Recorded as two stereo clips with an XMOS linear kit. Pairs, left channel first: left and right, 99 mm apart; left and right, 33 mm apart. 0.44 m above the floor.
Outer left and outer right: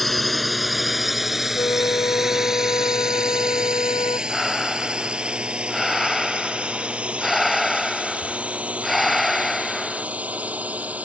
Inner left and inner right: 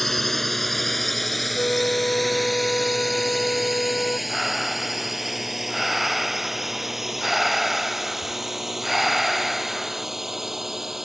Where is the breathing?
Centre (ahead or behind).